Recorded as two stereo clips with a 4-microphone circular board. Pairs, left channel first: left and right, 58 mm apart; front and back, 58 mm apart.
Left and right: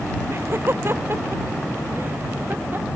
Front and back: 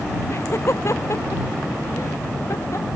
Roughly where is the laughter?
Ahead right.